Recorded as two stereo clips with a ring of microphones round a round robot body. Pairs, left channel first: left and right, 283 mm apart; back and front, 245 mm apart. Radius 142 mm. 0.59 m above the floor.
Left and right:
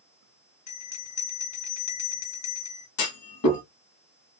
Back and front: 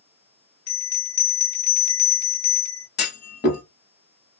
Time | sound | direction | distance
0.7 | a bell | 135° left | 1.4 m
3.0 | a clunk | 130° left | 1.2 m